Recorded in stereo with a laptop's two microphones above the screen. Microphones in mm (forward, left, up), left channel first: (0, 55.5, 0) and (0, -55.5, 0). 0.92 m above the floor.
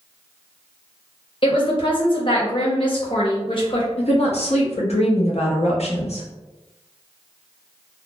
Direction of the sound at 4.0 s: 70° left (ahead or behind).